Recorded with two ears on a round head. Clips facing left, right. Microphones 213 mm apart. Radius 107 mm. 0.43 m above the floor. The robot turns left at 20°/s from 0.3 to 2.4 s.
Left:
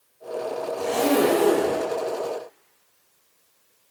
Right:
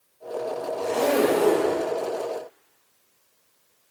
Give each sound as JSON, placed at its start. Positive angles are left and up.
{"t": 0.8, "sound": "a zipper", "side_deg": 75, "distance_m": 3.5}